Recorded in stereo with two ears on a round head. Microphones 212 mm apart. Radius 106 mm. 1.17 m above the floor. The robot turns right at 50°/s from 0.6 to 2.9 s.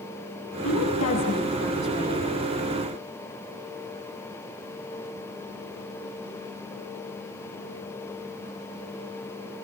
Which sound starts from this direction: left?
A woman speaking, at 0.6 s.